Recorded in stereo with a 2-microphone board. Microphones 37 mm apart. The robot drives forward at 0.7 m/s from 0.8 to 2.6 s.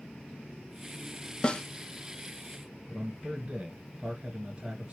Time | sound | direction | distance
1.4 | a snare drum | 25° left (ahead or behind) | 0.6 m
2.9 | a man speaking | 30° right (ahead or behind) | 2 m